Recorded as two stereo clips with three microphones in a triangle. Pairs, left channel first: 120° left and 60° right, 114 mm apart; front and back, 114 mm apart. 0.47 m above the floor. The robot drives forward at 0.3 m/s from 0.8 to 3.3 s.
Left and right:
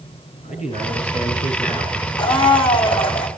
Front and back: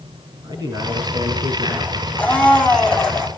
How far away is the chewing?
I don't hear chewing.